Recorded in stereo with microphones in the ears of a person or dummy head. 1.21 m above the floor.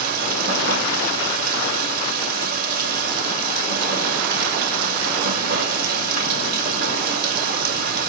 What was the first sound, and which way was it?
Running water, 55° right (ahead or behind).